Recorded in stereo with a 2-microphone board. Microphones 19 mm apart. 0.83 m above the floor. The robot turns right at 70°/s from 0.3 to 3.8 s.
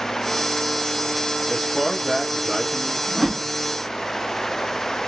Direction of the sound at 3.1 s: 10° left (ahead or behind).